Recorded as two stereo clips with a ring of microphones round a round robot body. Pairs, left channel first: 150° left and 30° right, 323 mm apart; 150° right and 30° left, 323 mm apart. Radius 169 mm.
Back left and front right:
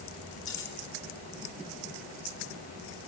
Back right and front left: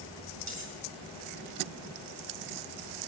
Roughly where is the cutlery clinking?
Left.